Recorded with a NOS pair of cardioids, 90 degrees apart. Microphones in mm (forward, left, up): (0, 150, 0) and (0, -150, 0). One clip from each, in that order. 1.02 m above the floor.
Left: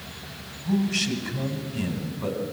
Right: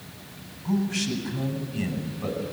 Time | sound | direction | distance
0.7 | a man speaking | 20° left | 7.5 m